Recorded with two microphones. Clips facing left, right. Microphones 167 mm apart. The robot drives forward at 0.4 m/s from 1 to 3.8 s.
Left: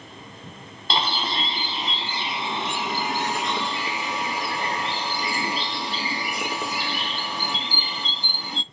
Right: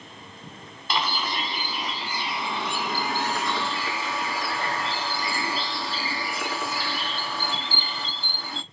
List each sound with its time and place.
0.9 s a bird: 30° left (ahead or behind), 1.2 m; by 8.6 s 20° left (ahead or behind), 1.8 m